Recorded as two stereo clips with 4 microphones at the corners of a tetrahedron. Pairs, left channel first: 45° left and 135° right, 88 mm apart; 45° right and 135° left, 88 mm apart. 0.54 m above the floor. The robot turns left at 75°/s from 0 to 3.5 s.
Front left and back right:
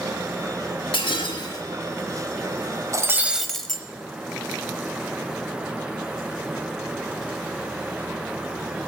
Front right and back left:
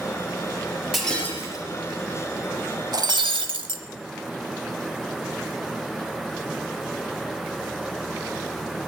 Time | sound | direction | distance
0.9 | breaking glass | 50° left | 3.5 m
2.9 | breaking glass | 175° left | 1.0 m